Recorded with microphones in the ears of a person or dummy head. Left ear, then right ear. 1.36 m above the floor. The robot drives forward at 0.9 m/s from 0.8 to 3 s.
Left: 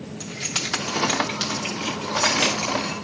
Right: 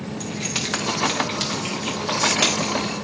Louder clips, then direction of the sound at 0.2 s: Even; 5° right (ahead or behind).